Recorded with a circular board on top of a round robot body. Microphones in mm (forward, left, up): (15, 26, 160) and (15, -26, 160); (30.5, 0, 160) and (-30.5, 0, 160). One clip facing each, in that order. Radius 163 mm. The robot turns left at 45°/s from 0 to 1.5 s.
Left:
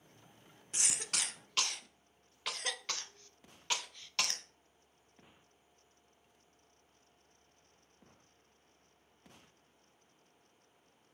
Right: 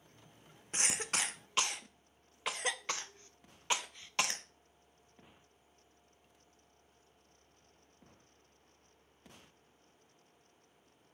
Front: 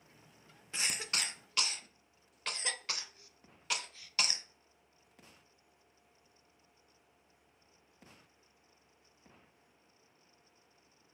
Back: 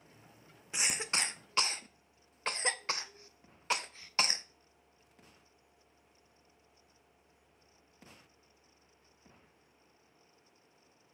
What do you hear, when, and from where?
0.7 s a cough: 115° right, 0.6 m; by 4.5 s 145° right, 0.6 m